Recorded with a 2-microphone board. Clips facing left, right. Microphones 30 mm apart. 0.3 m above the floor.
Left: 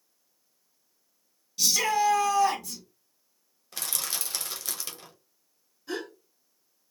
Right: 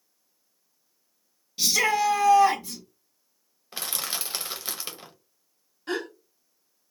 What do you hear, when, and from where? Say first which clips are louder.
1.6 s a shout: right 2 dB; 25° right (ahead or behind), 1.4 m
3.7 s crushing: right 2 dB; 25° right (ahead or behind), 0.8 m
5.9 s a gasp: right 4 dB; 60° right (ahead or behind), 1.0 m